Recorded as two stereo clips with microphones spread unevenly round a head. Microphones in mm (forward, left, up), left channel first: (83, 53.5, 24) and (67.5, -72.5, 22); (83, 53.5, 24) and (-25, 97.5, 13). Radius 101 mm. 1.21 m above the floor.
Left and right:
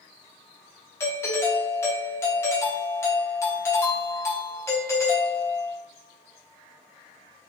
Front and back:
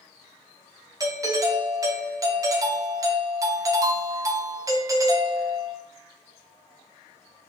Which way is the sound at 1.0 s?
140° left.